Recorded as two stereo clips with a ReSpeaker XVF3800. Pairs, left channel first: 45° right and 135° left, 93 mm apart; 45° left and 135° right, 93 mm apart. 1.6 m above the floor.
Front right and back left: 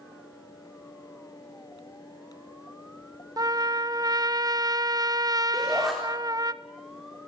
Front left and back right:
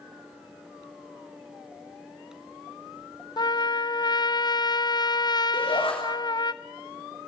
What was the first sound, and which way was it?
A trumpet, 85° left.